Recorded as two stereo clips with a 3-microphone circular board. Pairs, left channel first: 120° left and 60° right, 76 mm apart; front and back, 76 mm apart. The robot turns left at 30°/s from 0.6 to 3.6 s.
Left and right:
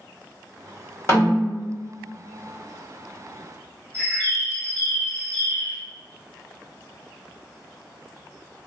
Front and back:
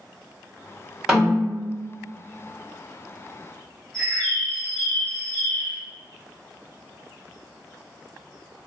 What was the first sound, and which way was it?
A snare drum, 100° left.